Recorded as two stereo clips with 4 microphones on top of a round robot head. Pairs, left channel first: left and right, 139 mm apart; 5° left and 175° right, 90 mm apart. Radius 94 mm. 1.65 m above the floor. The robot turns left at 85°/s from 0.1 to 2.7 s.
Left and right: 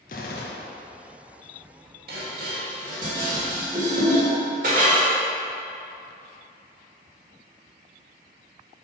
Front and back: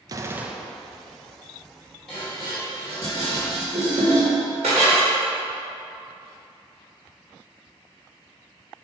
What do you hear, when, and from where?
0.1 s a gunshot: 135° left, 0.6 m; by 0.8 s 75° left, 0.6 m
2.1 s dishes clattering: 85° right, 1.7 m; by 5.1 s 135° right, 1.7 m